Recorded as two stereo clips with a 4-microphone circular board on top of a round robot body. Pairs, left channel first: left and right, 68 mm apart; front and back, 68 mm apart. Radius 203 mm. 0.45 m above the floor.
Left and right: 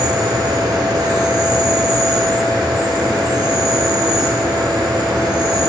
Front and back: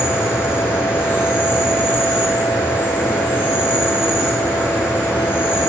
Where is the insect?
105° right, 4 m.